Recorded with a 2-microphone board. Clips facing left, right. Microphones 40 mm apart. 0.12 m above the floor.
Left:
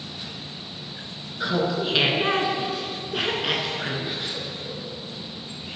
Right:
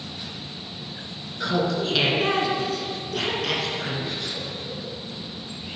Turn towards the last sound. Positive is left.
turn(degrees=20)  # may be behind; listen again after turning